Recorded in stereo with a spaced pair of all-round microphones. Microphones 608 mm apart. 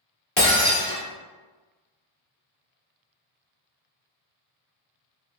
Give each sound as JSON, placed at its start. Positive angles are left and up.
{"t": 0.4, "sound": "breaking glass", "side_deg": 30, "distance_m": 1.3}